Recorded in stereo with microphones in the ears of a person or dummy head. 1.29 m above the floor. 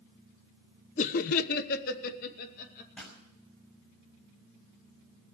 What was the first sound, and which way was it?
Laughter, 35° left (ahead or behind).